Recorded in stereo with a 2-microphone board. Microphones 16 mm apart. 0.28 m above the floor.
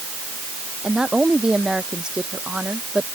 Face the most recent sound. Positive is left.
turn(degrees=-65)  # may be behind; listen again after turning